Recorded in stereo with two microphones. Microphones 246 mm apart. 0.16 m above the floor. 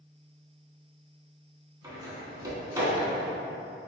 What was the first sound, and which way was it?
A door slam, 15° right (ahead or behind).